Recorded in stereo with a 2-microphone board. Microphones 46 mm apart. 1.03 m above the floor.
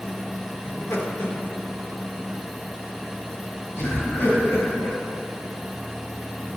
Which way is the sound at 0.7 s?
65° left (ahead or behind).